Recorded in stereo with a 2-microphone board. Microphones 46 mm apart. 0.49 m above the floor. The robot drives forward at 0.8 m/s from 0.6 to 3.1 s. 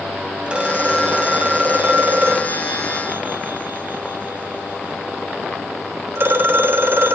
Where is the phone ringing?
25° right (ahead or behind), 2.5 m; by 7.1 s 55° right (ahead or behind), 1.3 m.